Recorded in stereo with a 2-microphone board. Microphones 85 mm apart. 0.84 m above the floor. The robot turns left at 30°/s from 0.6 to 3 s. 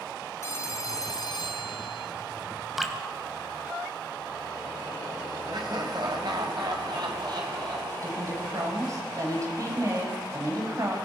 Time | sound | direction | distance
0.4 | a phone ringing | 150° left | 2.5 m
2.8 | dripping | 5° right (ahead or behind) | 2.5 m
5.5 | laughter | 55° right (ahead or behind) | 4.5 m
8.0 | a woman speaking | 40° right (ahead or behind) | 6 m